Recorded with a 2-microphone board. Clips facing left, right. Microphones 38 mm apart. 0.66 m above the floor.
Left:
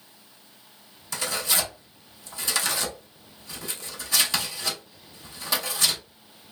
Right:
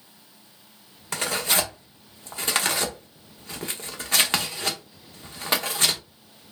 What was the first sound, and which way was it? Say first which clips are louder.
Tearing paper: right 3 dB; 45° right (ahead or behind).